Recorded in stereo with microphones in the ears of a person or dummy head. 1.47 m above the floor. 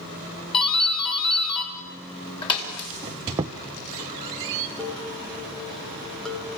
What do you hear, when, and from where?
0.5 s a doorbell: 30° left (ahead or behind), 3.5 m
3.0 s a squeak: 15° right (ahead or behind), 0.5 m
4.8 s dishes clattering: 5° left (ahead or behind), 2 m